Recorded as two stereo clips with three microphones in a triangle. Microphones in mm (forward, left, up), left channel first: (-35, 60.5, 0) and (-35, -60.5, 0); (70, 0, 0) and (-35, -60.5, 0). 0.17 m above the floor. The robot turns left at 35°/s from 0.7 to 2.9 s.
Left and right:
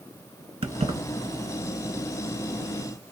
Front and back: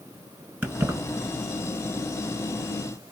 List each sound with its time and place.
0.6 s keys jangling: 80° right, 1.6 m; by 1.0 s 90° right, 1.6 m